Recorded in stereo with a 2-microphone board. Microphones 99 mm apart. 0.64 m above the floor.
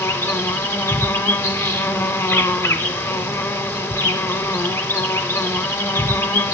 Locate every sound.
0.0 s an insect: 25° left (ahead or behind), 1.4 m